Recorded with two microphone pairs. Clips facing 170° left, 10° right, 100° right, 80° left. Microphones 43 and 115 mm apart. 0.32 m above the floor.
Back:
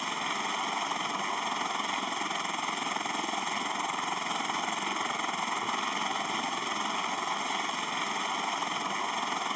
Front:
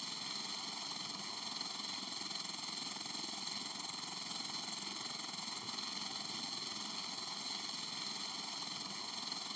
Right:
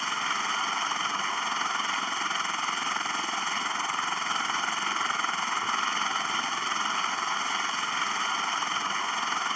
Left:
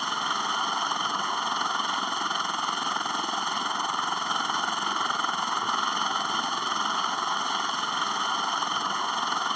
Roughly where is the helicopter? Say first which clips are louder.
Back 15 dB, left 2 dB; behind left.